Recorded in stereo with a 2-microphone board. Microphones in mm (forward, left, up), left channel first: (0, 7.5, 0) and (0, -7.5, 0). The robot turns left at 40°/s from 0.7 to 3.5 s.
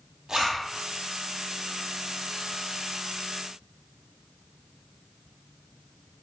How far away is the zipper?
About 1.2 m.